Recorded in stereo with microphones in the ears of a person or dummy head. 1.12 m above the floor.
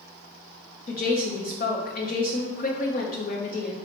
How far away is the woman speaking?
About 0.7 m.